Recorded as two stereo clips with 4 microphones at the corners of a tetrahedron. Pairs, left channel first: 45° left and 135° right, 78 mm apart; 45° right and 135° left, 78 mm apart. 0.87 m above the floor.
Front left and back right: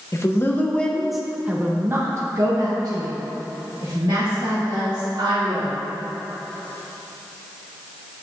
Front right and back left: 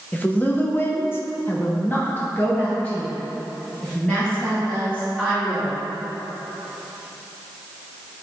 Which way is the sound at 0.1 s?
15° left.